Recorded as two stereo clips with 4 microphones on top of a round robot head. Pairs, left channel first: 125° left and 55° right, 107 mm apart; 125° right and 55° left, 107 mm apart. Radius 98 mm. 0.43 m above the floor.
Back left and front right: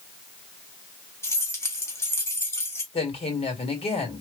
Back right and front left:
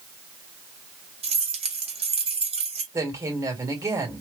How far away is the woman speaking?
About 2.5 m.